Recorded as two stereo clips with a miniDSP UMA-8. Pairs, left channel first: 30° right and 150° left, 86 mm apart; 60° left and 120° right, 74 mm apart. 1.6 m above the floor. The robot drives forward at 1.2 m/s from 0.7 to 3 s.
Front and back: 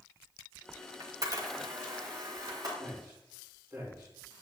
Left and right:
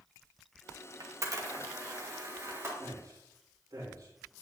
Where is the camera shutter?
160° right, 1.2 m; by 2.7 s 175° right, 3 m.